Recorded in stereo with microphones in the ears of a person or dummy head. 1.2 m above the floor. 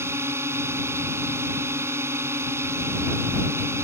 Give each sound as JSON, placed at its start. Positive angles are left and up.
{"t": 0.0, "sound": "a drone", "side_deg": -15}